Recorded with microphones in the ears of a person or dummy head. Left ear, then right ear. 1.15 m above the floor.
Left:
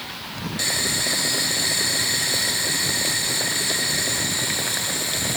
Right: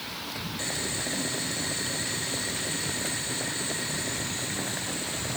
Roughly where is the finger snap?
No finger snap in this recording.